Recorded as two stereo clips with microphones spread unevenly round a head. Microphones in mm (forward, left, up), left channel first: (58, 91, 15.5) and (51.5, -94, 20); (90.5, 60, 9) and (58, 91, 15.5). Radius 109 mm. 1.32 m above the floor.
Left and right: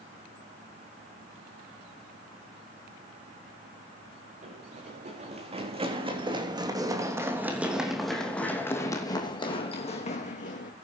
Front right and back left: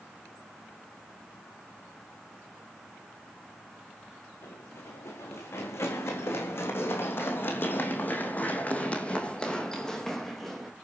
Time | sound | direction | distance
4.4 | running footsteps | 50° right | 4.5 m